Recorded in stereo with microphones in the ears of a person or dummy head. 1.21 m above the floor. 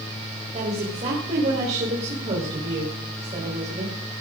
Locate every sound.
0.5 s a woman speaking: 35° right (ahead or behind), 4 m